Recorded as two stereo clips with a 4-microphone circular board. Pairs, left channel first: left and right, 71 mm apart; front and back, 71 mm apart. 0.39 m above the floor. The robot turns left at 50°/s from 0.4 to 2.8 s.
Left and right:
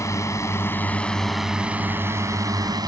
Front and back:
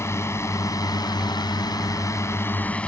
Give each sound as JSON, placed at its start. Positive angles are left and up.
{"t": 0.0, "sound": "a drone", "azimuth_deg": 50}